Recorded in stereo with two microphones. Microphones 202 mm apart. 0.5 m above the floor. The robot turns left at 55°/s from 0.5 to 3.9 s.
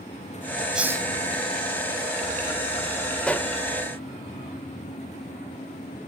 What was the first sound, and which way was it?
A hiss, centre (ahead or behind).